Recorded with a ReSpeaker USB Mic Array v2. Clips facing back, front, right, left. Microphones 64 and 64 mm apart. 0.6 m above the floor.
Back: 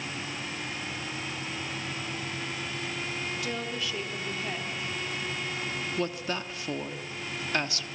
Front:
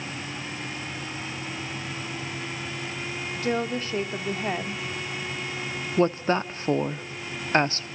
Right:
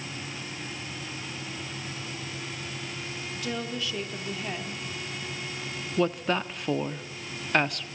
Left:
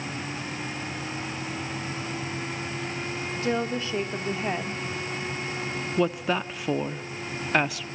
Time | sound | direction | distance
3.4 | a woman speaking | 40° left | 1.5 m
6.0 | a woman speaking | 5° left | 0.9 m